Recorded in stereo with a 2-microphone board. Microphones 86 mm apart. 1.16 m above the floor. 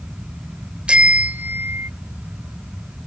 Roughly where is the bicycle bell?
Centre.